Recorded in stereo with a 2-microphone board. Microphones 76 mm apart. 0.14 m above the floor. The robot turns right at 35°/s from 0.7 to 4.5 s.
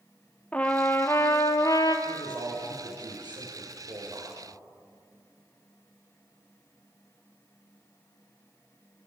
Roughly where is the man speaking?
Behind right.